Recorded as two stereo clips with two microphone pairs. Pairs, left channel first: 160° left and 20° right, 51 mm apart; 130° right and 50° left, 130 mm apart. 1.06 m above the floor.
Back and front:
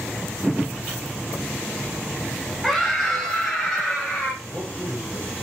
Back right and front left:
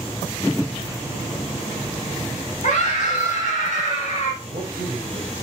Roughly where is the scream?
Right.